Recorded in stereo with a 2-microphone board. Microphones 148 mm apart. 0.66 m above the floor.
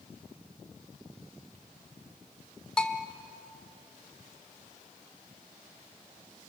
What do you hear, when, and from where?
2.8 s a bell: 5° left (ahead or behind), 1.1 m